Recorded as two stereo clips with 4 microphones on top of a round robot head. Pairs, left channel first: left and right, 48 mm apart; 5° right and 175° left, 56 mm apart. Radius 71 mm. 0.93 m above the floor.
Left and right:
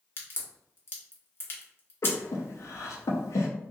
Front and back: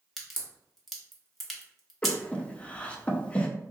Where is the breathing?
65° left, 0.5 m.